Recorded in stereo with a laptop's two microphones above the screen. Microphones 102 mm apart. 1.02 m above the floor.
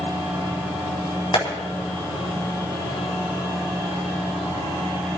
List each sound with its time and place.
1.3 s tapping: 50° left (ahead or behind), 4 m